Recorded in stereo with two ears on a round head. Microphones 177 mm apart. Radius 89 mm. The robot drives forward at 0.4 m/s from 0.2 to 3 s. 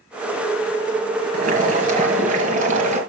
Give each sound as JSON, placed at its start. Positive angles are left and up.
{"t": 1.3, "sound": "boiling", "side_deg": -45, "distance_m": 4.5}